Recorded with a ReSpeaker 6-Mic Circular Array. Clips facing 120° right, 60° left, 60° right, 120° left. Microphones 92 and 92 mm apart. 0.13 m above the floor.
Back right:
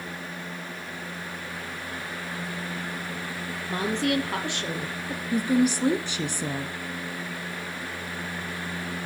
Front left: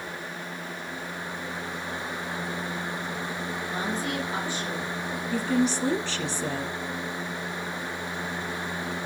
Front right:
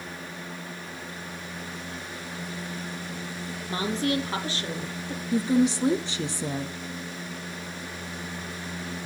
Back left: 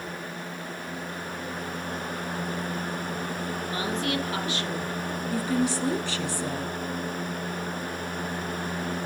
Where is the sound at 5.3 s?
75° right, 1.3 m.